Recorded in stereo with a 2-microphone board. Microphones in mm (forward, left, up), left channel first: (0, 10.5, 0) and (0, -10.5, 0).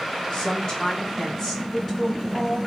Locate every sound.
0.3 s a woman speaking: 35° left (ahead or behind), 2.0 m; by 2.6 s 5° left (ahead or behind), 2.5 m